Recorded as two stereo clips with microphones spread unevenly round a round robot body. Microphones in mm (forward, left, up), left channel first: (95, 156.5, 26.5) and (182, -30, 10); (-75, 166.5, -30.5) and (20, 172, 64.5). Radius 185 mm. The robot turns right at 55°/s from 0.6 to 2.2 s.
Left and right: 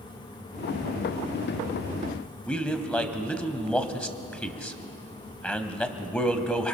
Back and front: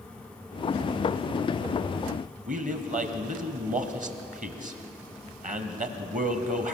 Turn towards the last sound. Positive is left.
turn(degrees=30)